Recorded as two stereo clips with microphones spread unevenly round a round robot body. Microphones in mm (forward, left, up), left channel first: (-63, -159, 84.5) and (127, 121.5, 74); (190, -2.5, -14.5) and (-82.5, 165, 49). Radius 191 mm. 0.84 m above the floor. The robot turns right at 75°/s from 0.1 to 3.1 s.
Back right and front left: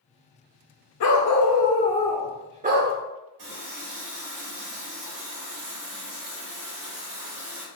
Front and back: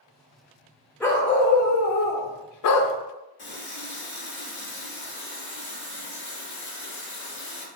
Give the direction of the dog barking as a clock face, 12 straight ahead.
4 o'clock.